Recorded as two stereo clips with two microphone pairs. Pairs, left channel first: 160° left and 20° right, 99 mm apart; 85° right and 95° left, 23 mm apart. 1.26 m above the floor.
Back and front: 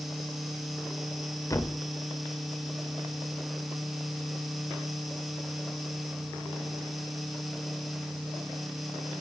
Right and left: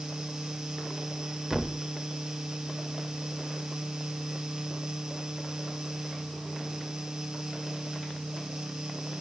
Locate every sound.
1.5 s a thud: 155° left, 1.1 m